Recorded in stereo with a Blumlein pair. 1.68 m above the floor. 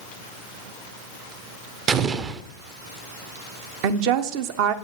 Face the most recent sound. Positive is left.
turn(degrees=-45)